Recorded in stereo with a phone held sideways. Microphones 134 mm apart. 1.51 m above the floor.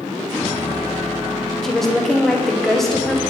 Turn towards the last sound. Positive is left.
turn(degrees=0)  # may be behind; listen again after turning